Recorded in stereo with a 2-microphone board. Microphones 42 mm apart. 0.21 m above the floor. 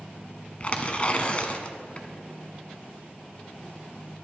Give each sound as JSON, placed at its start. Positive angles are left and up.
{"t": 0.6, "sound": "tearing paper", "side_deg": 35, "distance_m": 0.8}